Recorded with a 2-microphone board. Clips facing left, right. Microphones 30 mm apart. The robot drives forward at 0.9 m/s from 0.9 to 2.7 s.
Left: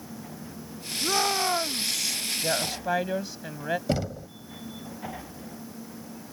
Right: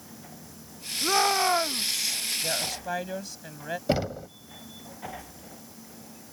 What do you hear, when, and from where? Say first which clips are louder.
1.0 s a shout: right 2 dB; 10° right (ahead or behind)
2.4 s a woman speaking: left 3 dB; 20° left (ahead or behind); by 3.8 s 15° left (ahead or behind)
3.9 s knocking: right 2 dB; 20° right (ahead or behind)